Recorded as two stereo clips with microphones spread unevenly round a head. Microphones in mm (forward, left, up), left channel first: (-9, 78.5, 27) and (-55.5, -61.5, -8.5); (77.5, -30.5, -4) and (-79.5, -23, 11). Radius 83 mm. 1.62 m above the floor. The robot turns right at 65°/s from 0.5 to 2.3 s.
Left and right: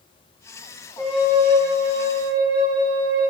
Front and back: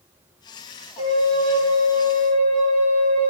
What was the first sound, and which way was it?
A flute, 175° right.